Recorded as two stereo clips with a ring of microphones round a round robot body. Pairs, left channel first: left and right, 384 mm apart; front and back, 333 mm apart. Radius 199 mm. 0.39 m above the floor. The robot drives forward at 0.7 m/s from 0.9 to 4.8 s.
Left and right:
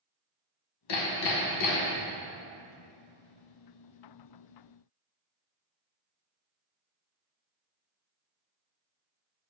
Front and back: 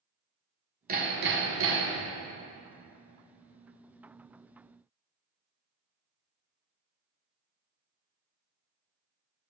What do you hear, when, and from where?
0.9 s hammering: 115° left, 1.5 m; by 2.1 s 135° left, 1.9 m